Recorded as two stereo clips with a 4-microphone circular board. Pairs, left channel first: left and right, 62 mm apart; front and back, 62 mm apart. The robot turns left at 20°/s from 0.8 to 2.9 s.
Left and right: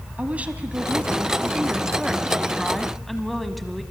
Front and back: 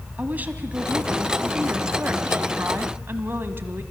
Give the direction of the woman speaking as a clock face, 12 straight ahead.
5 o'clock.